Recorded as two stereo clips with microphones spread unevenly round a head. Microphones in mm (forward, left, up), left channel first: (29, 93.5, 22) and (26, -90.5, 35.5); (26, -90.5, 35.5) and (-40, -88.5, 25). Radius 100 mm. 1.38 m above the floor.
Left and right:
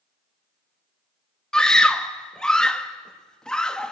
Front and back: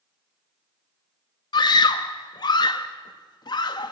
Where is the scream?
Straight ahead, 1.7 m.